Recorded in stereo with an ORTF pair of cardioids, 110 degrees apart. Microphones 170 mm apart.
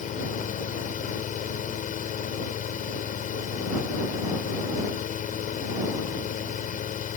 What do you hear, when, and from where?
0.0 s a fan: 50° left